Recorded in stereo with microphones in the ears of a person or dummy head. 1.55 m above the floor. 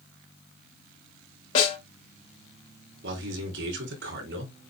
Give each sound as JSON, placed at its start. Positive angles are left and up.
{"t": 1.6, "sound": "a snare drum", "side_deg": 40, "distance_m": 5.0}
{"t": 3.0, "sound": "a man speaking", "side_deg": -75, "distance_m": 4.0}